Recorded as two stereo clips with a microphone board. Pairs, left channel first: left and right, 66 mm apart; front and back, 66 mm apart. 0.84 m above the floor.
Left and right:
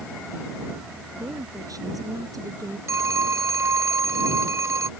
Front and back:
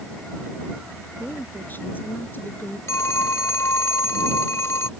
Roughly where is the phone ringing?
Ahead right.